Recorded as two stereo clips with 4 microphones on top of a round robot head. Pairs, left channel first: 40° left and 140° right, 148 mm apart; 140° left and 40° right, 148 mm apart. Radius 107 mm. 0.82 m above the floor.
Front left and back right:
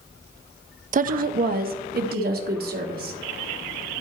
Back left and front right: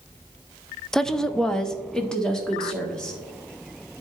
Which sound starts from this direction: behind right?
A woman speaking, at 0.9 s.